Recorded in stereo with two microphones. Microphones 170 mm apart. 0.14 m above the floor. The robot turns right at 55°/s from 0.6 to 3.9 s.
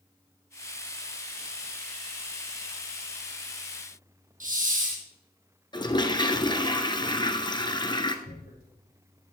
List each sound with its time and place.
4.4 s a hiss: 55° right (ahead or behind), 2.5 m
5.7 s a toilet flushing: 25° left (ahead or behind), 1.2 m
8.2 s tearing paper: 70° left (ahead or behind), 5.5 m